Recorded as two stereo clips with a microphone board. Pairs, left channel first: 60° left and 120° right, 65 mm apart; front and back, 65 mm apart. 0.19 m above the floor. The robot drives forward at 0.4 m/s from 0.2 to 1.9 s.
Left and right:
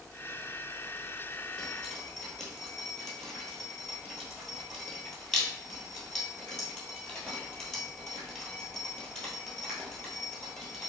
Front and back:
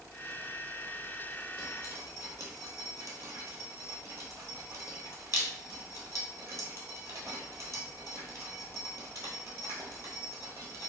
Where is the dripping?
135° left, 1.1 m; by 10.9 s 140° left, 1.2 m.